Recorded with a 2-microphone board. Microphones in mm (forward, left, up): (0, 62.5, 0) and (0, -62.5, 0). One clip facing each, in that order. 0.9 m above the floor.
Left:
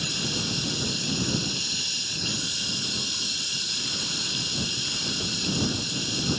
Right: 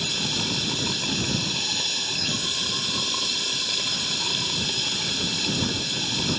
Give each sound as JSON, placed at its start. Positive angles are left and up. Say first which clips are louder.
{"t": 0.0, "sound": "running water", "louder": "right 1 dB", "side_deg": -65}